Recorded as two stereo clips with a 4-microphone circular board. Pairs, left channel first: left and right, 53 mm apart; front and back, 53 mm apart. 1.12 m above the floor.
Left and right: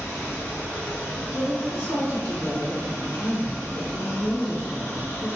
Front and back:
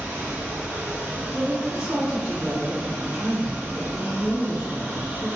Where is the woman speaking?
110° left, 1.2 m.